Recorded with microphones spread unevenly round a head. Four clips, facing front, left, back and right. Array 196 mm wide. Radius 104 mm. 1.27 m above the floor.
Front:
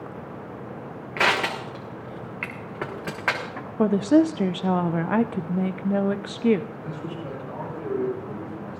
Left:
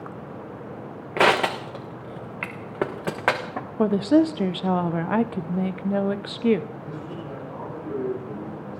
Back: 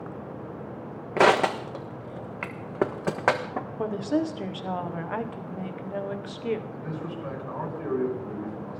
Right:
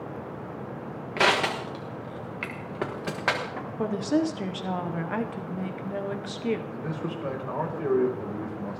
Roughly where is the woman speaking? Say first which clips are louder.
Left 7 dB, front 9 dB; ahead left.